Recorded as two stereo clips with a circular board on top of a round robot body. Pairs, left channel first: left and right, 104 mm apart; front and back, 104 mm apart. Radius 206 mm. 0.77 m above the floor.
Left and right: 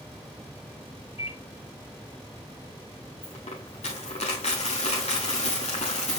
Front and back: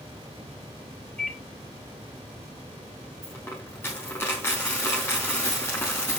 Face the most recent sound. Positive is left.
turn(degrees=70)